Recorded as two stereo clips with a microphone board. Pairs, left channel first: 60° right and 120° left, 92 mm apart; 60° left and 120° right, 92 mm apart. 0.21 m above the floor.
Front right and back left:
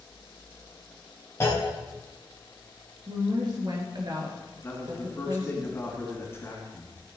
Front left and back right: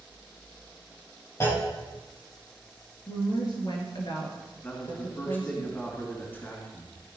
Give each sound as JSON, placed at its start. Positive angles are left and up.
{"t": 1.4, "sound": "a clunk", "azimuth_deg": 0, "distance_m": 4.0}
{"t": 3.1, "sound": "a woman speaking", "azimuth_deg": 85, "distance_m": 3.0}
{"t": 4.6, "sound": "a man speaking", "azimuth_deg": -5, "distance_m": 3.0}